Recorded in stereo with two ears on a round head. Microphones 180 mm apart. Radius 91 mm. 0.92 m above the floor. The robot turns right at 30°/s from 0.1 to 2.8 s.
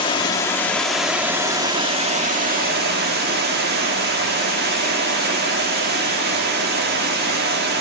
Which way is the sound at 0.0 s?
155° left.